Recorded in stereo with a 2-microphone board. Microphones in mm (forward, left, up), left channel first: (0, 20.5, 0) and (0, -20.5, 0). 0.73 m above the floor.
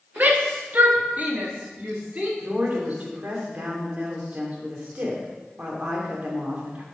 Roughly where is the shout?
Right.